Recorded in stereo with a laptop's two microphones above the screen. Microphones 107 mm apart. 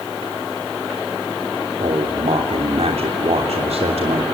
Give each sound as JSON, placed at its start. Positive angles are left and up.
{"t": 1.8, "sound": "a man speaking", "side_deg": -70, "distance_m": 3.0}